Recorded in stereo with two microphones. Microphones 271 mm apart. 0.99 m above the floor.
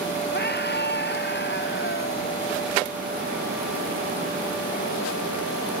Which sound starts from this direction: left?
A scream, at 0.3 s.